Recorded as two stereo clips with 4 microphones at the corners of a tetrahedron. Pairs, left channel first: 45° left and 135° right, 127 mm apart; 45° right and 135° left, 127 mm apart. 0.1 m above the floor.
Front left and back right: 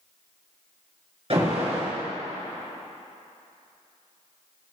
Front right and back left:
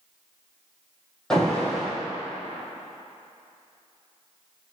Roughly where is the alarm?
Behind right.